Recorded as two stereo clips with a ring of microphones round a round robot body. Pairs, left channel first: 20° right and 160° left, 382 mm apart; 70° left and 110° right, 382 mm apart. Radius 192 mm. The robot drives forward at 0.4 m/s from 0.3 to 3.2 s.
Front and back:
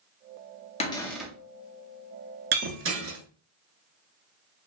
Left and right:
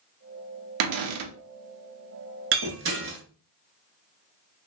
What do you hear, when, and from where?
0.8 s a cupboard door: 95° right, 0.5 m; by 1.3 s 120° right, 0.6 m
2.5 s breaking glass: 150° right, 0.7 m; by 3.2 s 160° right, 0.9 m